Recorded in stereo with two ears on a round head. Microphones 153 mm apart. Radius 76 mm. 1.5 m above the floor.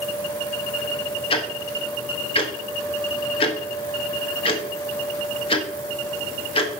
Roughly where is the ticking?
Left.